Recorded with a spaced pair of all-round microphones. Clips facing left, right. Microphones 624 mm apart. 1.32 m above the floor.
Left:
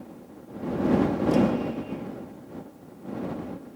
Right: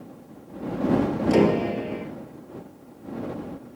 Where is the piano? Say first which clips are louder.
Right 3 dB; 85° right.